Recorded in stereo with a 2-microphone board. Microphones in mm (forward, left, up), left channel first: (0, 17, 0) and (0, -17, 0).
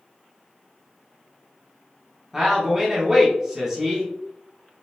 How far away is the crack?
I don't hear a crack.